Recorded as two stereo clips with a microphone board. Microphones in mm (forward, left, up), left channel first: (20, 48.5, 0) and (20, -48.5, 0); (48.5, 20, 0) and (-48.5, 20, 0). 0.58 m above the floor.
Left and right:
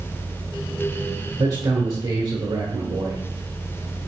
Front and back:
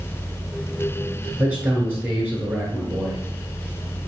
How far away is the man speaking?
About 1.3 m.